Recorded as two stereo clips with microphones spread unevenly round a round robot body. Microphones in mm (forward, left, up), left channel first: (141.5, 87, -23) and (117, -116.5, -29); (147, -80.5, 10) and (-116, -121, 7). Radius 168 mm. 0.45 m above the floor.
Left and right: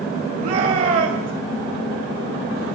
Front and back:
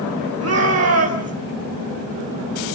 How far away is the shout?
About 2 m.